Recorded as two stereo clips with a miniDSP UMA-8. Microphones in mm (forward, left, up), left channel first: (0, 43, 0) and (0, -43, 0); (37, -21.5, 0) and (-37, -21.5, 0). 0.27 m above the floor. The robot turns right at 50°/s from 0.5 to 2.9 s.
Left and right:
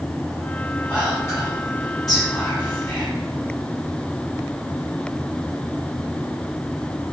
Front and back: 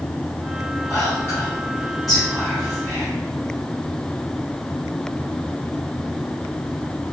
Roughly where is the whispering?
Ahead left.